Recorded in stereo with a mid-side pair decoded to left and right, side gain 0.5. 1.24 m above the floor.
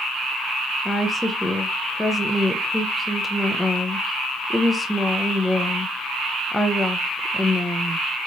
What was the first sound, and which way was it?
A woman speaking, 5° left.